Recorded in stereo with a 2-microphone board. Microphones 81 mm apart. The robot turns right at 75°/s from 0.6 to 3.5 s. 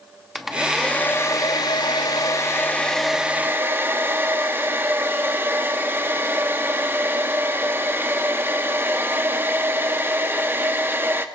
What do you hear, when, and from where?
0.3 s a hair dryer: 5° right, 1.2 m; by 11.2 s 145° right, 1.2 m